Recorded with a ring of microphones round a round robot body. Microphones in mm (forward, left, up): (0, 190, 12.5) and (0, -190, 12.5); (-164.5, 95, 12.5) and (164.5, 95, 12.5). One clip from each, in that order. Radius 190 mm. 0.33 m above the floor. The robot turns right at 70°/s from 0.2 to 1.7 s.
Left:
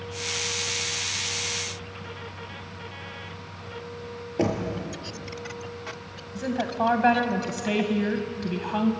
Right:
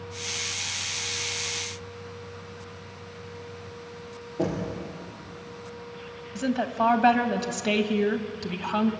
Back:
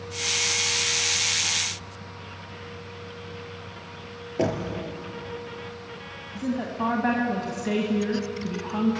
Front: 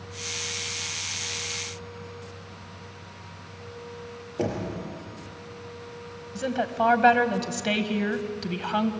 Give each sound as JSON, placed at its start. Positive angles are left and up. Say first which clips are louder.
{"t": 4.4, "sound": "knocking", "louder": "left 3 dB, back 3 dB", "azimuth_deg": 115, "distance_m": 5.0}
{"t": 6.3, "sound": "a woman speaking", "louder": "right 1 dB, front 4 dB", "azimuth_deg": -20, "distance_m": 1.8}